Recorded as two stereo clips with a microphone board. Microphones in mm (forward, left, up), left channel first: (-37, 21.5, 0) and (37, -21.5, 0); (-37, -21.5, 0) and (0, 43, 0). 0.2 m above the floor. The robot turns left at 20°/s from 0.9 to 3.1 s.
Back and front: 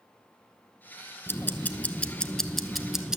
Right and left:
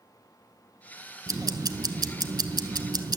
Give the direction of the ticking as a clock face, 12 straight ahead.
9 o'clock.